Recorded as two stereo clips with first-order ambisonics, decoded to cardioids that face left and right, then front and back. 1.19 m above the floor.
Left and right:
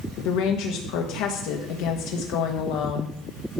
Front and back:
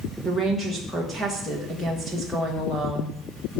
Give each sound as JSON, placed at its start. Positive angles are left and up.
{"t": 0.2, "sound": "a woman speaking", "azimuth_deg": 85, "distance_m": 1.5}